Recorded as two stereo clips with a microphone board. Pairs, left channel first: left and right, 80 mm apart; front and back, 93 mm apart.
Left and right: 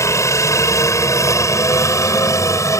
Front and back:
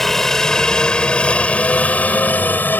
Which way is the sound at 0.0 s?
85° left.